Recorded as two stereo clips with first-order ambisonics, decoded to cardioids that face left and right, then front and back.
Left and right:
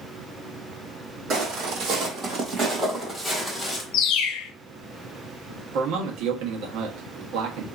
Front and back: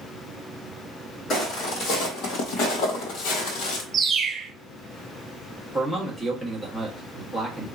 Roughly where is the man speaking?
Right.